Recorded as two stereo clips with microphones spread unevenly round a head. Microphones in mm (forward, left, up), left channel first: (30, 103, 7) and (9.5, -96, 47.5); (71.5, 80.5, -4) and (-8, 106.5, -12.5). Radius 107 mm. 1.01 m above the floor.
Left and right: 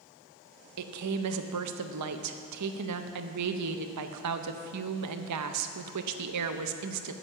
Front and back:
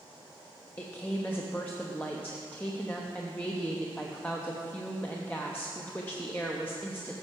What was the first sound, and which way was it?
A woman speaking, 100° right.